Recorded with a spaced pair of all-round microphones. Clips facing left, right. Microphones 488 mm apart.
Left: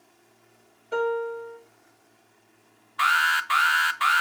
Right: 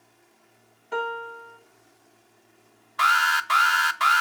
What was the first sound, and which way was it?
A piano, 15° right (ahead or behind).